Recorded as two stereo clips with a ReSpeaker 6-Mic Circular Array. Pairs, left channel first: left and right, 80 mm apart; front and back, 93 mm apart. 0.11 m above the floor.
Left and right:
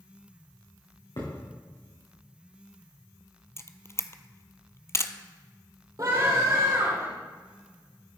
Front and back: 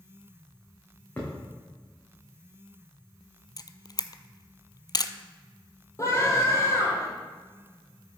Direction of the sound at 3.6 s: 40° left.